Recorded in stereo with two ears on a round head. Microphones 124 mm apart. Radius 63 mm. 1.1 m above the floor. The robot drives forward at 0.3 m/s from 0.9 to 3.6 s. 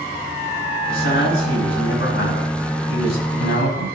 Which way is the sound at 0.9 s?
85° left.